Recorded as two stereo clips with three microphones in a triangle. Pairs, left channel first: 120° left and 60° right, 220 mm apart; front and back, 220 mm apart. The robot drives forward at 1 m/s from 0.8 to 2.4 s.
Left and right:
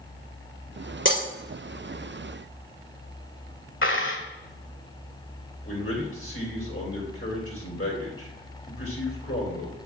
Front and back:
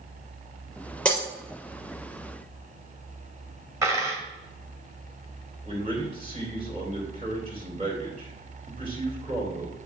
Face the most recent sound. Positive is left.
turn(degrees=120)